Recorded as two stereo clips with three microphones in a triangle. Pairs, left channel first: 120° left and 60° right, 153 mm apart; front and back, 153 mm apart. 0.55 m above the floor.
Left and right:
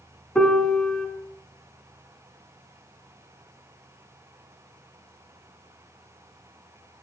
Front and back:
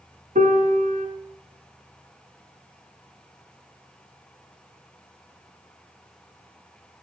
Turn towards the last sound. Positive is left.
turn(degrees=-155)